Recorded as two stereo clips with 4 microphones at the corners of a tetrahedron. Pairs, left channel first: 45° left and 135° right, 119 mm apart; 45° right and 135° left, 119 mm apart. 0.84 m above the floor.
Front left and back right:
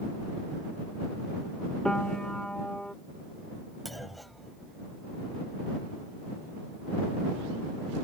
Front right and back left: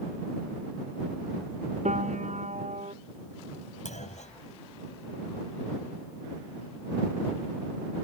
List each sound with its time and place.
1.9 s a piano: 130° left
3.9 s a clunk: 45° right